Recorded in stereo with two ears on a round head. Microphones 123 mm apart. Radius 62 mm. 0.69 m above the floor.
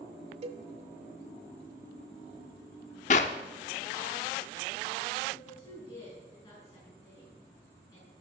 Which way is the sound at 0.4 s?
45° right (ahead or behind).